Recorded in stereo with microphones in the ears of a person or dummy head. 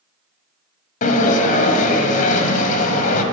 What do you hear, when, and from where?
1.0 s a sliding door: 45° left (ahead or behind), 1.0 m